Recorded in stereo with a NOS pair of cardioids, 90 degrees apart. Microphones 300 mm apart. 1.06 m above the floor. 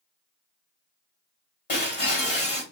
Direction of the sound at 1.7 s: 35° left.